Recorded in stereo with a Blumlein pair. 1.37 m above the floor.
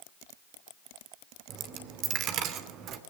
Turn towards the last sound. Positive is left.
turn(degrees=-35)